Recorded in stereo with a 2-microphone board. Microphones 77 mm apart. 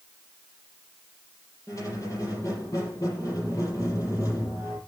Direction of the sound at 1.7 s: 45° left (ahead or behind).